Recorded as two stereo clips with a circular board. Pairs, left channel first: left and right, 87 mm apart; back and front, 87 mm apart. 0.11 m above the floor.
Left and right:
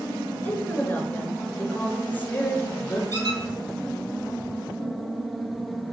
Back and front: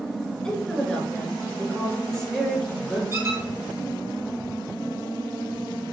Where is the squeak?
55° right, 1.1 m.